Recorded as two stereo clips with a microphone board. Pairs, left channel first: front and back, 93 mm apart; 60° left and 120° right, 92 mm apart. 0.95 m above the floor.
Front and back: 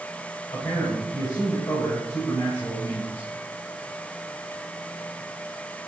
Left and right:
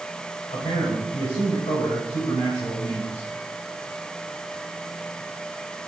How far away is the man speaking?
About 4.5 m.